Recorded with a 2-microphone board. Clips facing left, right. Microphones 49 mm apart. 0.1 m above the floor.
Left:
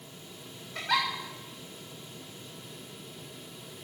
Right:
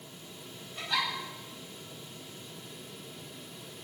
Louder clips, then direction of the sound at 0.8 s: Left 4 dB; 80° left.